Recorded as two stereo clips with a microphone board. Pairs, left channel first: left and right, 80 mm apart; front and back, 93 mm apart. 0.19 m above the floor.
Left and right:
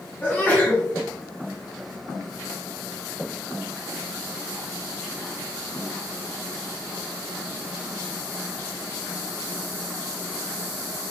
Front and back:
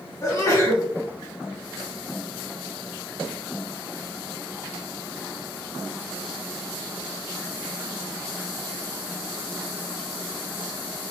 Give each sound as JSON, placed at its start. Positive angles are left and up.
{"t": 0.2, "sound": "a sneeze", "azimuth_deg": 35, "distance_m": 1.6}